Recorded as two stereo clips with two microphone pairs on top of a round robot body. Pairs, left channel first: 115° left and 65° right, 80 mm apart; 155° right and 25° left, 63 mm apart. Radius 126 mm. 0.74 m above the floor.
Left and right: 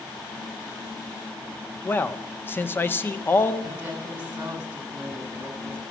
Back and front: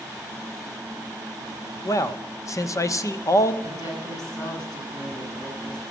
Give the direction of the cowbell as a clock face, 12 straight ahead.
No cowbell in this recording.